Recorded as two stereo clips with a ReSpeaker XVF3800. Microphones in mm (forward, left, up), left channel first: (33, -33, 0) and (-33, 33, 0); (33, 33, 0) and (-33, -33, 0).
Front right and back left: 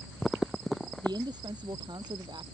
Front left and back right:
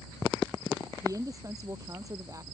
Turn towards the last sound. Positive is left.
turn(degrees=175)